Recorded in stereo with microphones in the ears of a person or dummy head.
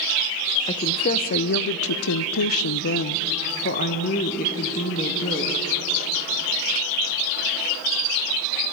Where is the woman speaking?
30° left (ahead or behind), 1.0 m; by 5.6 s 35° left (ahead or behind), 2.5 m.